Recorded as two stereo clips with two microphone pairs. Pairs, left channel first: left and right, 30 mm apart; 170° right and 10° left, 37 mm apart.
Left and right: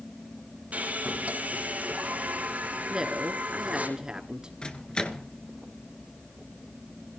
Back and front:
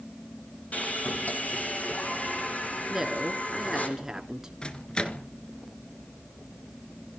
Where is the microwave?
135° left, 1.6 m.